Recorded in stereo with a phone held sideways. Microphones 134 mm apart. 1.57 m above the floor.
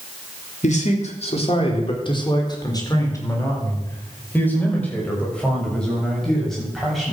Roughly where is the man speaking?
Left.